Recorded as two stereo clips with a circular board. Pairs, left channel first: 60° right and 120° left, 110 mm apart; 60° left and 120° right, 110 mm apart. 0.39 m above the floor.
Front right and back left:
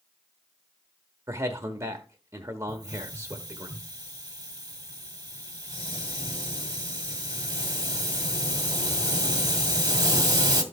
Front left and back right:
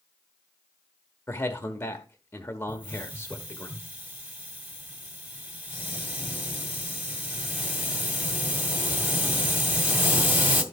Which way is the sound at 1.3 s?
100° left.